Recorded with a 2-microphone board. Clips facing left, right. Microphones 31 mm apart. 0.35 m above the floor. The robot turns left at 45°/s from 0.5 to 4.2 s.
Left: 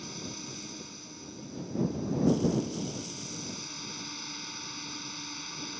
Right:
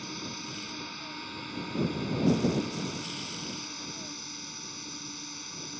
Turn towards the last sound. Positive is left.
turn(degrees=165)